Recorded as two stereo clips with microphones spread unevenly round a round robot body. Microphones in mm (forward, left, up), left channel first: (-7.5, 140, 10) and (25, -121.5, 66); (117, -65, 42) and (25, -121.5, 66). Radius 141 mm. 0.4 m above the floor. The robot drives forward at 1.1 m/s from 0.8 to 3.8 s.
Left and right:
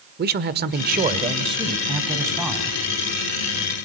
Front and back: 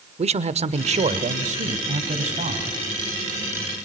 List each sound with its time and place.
0.2 s a man speaking: 140° right, 1.1 m; by 2.7 s 170° right, 3 m